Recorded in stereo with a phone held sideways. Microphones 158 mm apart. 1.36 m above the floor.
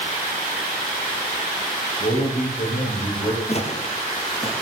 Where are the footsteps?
40° left (ahead or behind), 2 m; by 4.5 s 35° left (ahead or behind), 2.5 m.